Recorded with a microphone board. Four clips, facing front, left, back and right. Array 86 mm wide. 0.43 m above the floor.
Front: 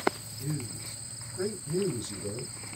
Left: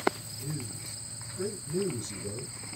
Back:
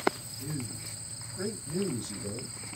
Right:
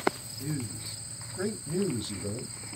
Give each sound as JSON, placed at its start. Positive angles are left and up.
{"t": 0.4, "sound": "a man speaking", "azimuth_deg": -75, "distance_m": 0.9}